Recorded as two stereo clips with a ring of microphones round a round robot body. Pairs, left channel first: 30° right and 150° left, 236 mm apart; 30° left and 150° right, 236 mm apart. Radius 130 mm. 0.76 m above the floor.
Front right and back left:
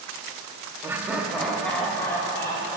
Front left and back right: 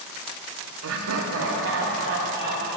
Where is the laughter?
130° right, 0.9 m; by 2.8 s 110° right, 2 m.